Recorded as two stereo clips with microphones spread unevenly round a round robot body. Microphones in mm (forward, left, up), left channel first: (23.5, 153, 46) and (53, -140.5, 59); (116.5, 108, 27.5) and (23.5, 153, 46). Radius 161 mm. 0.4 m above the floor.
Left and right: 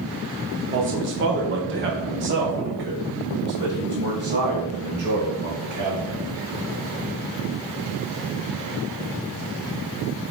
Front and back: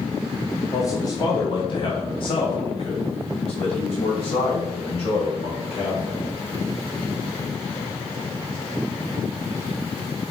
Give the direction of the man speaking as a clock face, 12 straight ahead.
2 o'clock.